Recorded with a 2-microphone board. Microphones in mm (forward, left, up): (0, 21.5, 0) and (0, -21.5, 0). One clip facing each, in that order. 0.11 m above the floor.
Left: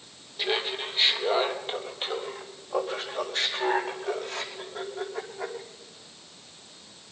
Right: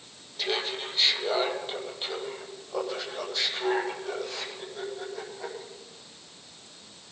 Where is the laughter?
15° left (ahead or behind), 2.5 m; by 5.6 s 45° left (ahead or behind), 7 m.